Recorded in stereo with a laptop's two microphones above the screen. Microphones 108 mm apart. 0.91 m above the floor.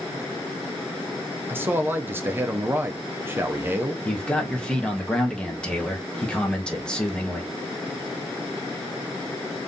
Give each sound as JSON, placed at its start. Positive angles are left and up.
{"t": 1.5, "sound": "a man speaking", "side_deg": -20, "distance_m": 0.6}
{"t": 4.0, "sound": "a man speaking", "side_deg": 10, "distance_m": 0.8}